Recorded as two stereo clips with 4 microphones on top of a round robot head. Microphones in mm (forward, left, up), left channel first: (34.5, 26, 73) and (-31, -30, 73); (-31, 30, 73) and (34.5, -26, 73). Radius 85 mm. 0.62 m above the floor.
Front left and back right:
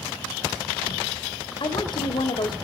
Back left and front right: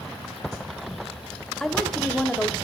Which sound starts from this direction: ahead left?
A woman speaking, at 1.6 s.